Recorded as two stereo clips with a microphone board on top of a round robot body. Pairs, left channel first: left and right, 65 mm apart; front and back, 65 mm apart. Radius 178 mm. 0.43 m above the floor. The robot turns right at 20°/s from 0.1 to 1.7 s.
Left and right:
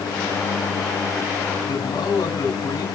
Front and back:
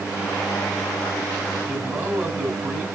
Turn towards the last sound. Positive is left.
turn(degrees=120)